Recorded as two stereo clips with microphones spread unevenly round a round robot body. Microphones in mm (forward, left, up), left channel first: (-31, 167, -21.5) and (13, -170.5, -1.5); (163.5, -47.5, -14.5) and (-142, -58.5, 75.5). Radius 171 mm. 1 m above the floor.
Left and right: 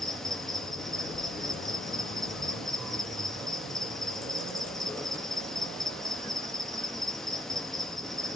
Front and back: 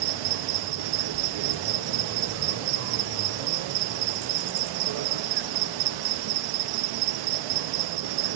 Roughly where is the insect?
Behind.